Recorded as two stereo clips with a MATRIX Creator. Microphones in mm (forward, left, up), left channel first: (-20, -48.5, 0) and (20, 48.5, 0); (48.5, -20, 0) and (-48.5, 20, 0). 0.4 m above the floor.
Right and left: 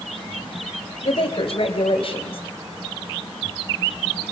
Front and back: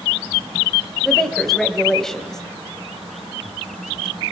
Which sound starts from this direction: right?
A woman speaking, at 1.0 s.